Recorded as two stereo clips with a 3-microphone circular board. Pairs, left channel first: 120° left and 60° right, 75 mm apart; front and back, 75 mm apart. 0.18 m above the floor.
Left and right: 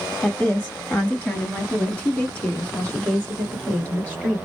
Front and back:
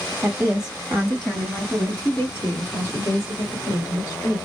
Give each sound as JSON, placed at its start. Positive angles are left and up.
{"t": 0.2, "sound": "a woman speaking", "azimuth_deg": 170, "distance_m": 1.1}